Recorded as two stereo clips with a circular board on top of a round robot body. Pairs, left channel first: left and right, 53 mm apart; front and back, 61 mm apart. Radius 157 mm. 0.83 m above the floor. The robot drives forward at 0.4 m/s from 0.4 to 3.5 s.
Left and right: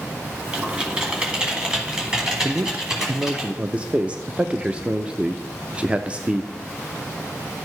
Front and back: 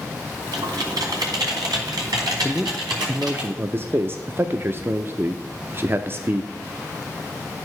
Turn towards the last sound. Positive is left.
turn(degrees=-150)